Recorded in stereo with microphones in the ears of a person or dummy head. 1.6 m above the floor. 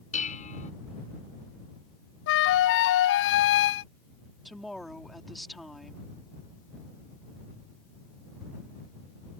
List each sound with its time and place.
0.1 s dishes clattering: 45° left (ahead or behind)
2.3 s a flute: 65° left (ahead or behind)
4.5 s a woman speaking: centre (ahead or behind)